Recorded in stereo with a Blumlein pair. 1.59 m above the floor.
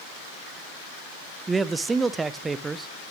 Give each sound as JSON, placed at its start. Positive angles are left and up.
{"t": 1.5, "sound": "a man speaking", "azimuth_deg": -15, "distance_m": 0.7}